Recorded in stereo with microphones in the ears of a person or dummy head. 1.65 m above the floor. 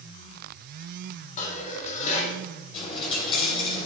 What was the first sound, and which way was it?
Dishes clattering, 50° left (ahead or behind).